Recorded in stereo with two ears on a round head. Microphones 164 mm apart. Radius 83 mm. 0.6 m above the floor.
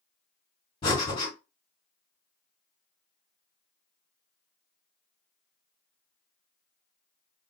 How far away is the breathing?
About 2 m.